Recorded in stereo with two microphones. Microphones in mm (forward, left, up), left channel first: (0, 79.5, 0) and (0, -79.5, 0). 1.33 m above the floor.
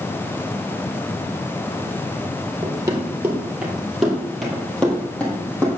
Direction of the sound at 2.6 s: 20° right (ahead or behind).